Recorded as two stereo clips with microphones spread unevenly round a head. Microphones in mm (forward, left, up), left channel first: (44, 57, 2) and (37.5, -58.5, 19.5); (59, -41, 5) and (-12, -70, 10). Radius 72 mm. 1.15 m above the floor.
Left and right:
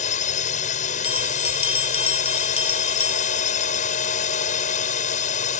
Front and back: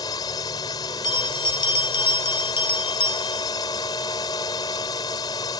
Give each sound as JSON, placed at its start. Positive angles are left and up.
{"t": 0.0, "sound": "a drone", "azimuth_deg": 80}
{"t": 1.0, "sound": "a bell", "azimuth_deg": 50}